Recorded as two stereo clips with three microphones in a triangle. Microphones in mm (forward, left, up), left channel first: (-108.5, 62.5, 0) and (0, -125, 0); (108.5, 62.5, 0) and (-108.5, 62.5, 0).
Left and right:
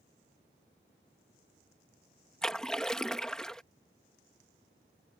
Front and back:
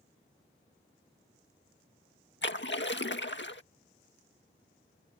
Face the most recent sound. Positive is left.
turn(degrees=35)